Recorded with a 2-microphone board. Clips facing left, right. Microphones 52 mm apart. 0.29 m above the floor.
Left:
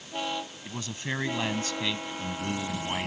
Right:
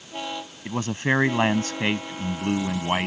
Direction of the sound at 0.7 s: 45° right (ahead or behind).